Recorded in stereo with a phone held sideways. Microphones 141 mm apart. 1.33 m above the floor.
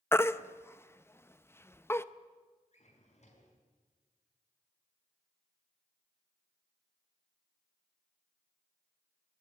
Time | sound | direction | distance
0.1 | a baby crying | 15° left (ahead or behind) | 0.6 m
2.7 | a drawer | 50° left (ahead or behind) | 4.5 m